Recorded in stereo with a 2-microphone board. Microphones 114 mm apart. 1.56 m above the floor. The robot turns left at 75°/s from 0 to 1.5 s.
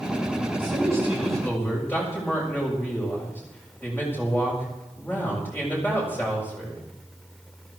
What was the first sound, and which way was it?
A man speaking, 125° right.